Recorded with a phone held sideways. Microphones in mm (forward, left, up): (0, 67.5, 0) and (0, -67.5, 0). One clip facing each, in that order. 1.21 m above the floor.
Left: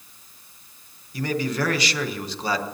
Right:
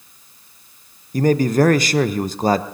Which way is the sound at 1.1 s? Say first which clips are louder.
Right 10 dB; 45° right (ahead or behind).